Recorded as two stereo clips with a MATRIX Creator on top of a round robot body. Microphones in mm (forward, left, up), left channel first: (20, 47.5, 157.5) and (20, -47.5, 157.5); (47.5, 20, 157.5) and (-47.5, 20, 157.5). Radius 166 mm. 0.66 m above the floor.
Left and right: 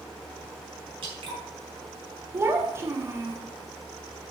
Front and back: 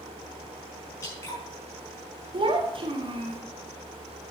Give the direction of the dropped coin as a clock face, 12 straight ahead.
No dropped coin in this recording.